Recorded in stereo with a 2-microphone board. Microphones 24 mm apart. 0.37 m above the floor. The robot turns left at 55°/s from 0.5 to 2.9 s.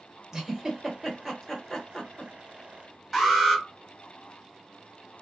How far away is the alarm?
About 1.3 m.